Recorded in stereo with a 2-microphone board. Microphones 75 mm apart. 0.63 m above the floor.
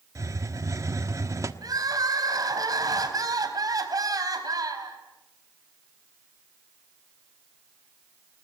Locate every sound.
0.1 s a hiss: 45° right (ahead or behind), 1.5 m
1.6 s crying: 55° right (ahead or behind), 4 m